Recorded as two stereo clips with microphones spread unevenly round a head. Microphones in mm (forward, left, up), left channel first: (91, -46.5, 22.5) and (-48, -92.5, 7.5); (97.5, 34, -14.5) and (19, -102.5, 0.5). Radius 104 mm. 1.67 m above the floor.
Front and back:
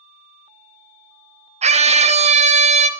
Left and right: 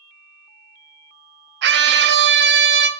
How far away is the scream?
About 1.0 m.